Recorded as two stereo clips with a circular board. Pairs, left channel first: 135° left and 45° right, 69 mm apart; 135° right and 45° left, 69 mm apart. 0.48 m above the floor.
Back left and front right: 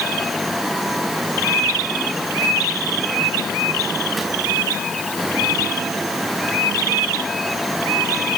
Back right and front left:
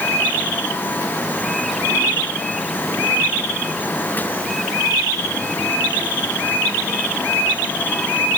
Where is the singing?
No singing in this recording.